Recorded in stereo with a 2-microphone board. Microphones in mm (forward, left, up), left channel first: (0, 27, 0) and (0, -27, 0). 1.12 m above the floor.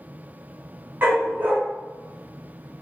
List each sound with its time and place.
1.0 s a dog barking: 35° right (ahead or behind), 1.3 m